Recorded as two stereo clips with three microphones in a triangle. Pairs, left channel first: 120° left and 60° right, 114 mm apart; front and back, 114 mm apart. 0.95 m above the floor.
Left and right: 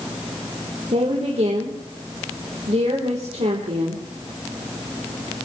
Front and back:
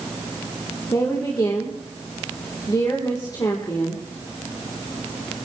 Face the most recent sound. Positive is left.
turn(degrees=-55)